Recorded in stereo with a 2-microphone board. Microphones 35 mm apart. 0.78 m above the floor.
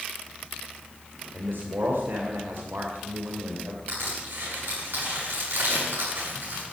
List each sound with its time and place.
1.3 s a man speaking: 75° right (ahead or behind), 3 m
3.9 s crushing: 85° right, 9.5 m